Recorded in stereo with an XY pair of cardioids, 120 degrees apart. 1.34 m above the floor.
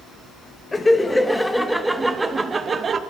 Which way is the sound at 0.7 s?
15° left.